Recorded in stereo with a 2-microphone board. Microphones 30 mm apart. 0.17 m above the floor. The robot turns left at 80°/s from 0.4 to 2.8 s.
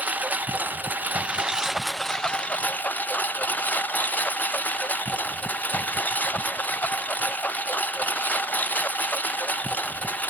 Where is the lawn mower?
60° right; by 10.3 s 110° left.